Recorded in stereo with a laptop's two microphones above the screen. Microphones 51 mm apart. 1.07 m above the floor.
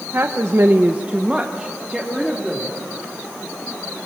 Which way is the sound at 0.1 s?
45° right (ahead or behind).